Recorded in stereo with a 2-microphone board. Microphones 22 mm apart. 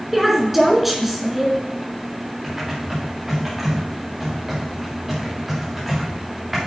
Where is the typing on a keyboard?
15° right (ahead or behind), 4.5 m.